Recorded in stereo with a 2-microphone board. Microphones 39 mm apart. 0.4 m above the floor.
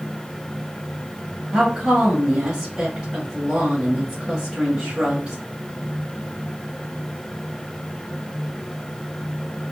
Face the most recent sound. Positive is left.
turn(degrees=-15)  # may be behind; listen again after turning